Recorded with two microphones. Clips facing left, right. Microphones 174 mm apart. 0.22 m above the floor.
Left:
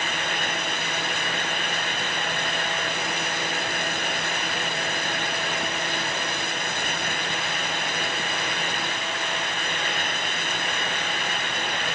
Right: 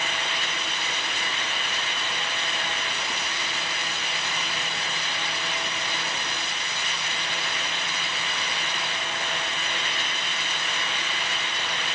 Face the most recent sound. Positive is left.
No sound to turn to.